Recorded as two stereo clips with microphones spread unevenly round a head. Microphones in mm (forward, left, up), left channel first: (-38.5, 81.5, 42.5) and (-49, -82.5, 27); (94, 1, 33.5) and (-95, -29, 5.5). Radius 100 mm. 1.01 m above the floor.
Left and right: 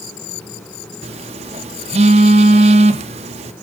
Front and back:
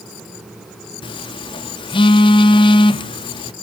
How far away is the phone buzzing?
About 0.5 m.